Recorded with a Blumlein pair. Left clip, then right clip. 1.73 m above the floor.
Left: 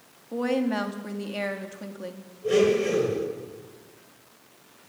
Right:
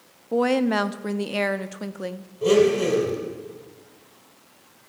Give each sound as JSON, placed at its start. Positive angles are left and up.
{"t": 0.3, "sound": "a woman speaking", "azimuth_deg": -25, "distance_m": 0.6}
{"t": 2.4, "sound": "a blender", "azimuth_deg": -45, "distance_m": 5.5}